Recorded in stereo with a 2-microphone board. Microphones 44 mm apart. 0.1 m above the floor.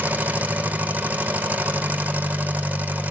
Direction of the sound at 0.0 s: 30° right (ahead or behind).